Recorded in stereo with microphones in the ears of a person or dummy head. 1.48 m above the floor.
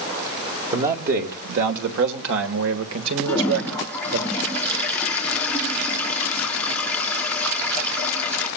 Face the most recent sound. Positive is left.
turn(degrees=10)  # may be behind; listen again after turning